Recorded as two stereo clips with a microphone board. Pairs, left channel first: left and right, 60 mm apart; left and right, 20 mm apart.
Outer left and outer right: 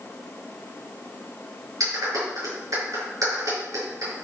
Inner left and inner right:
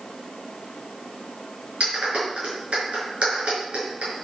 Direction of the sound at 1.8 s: 70° right (ahead or behind).